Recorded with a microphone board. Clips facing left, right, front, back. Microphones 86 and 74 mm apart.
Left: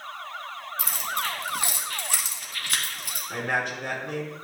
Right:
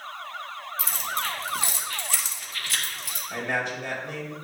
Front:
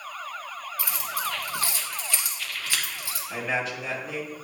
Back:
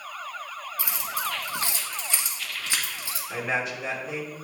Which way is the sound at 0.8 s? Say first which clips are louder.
Even, even; 115° left.